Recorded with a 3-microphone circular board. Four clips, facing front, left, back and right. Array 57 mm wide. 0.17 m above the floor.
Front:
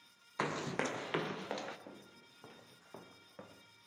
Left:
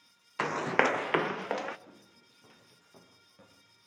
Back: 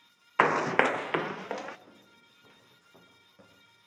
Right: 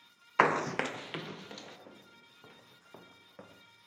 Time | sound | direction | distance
0.4 | running footsteps | 145° right | 0.6 m
1.9 | footsteps | 20° right | 3.5 m